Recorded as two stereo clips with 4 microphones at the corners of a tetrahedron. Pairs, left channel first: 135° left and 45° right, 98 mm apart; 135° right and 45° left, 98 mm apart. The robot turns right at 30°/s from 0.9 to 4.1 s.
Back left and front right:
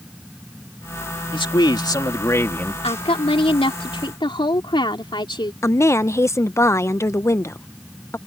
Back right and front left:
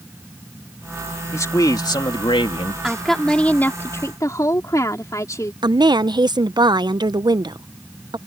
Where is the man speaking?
165° left; by 2.7 s 155° right.